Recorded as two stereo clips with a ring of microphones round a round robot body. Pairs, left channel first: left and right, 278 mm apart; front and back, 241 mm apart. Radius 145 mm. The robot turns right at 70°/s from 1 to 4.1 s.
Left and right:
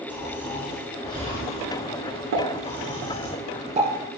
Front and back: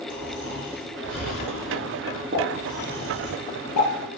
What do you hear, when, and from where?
0.1 s snoring: 5° left, 5 m; by 3.3 s 170° left, 5 m
2.3 s a pop: 120° right, 2.5 m; by 3.9 s 10° right, 2.5 m